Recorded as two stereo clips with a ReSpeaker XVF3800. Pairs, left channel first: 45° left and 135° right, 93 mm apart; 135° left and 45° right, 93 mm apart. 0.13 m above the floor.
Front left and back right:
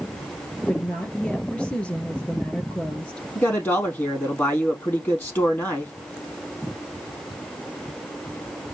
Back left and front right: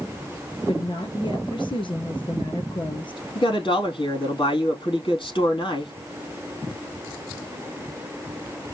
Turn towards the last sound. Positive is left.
turn(degrees=110)